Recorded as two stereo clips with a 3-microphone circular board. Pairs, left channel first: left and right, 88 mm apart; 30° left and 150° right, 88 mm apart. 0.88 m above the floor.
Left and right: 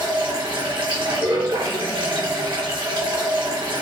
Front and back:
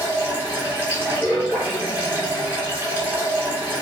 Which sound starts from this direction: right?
Running water, at 0.0 s.